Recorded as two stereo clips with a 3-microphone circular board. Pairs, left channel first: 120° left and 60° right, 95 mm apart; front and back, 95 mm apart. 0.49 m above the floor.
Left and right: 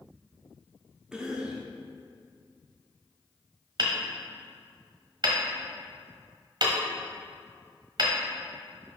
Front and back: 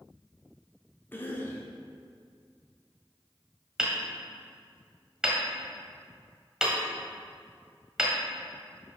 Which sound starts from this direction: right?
Hammering, at 3.8 s.